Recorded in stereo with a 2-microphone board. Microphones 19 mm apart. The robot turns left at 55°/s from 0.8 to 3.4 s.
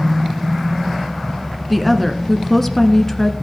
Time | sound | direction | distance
1.7 | a woman speaking | 10° right (ahead or behind) | 1.1 m